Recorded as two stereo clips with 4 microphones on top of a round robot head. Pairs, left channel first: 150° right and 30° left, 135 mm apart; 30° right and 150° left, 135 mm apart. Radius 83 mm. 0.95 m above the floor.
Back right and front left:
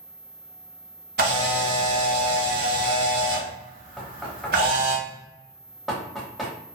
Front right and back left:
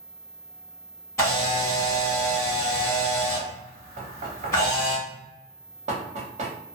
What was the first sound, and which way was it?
A camera shutter, 35° left.